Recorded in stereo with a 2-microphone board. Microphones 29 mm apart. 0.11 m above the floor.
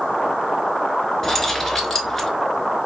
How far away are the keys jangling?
About 1.0 m.